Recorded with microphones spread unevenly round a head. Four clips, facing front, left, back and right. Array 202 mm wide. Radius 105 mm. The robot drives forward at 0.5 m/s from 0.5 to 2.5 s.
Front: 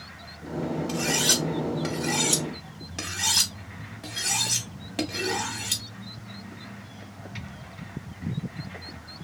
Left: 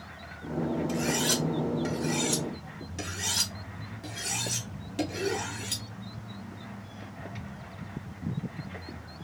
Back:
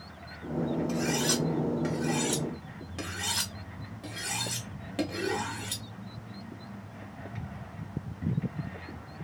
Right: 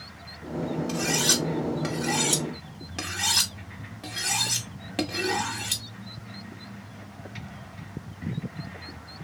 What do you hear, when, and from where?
0.9 s cutlery clinking: 45° right, 1.8 m; by 5.8 s 80° right, 1.5 m